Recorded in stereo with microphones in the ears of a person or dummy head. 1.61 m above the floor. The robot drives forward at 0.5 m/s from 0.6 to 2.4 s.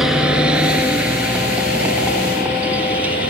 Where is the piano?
No piano in this recording.